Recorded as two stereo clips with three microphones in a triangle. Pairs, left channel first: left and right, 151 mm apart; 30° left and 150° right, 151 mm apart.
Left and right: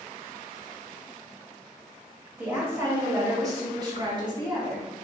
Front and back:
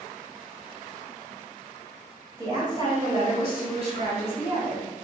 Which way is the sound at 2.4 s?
150° right.